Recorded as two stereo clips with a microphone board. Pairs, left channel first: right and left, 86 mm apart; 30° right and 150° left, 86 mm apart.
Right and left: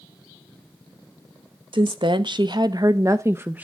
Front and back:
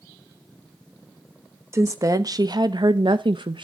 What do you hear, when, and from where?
1.7 s a woman speaking: 95° left, 1.0 m; by 3.6 s 160° left, 0.8 m